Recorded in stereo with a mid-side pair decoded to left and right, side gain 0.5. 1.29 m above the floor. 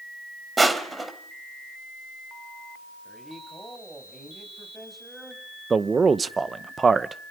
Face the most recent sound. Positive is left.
turn(degrees=-30)